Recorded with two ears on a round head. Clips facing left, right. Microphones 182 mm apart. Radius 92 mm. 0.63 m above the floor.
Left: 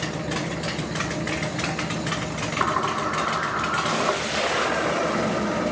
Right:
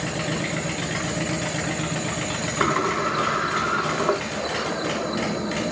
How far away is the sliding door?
About 1.5 m.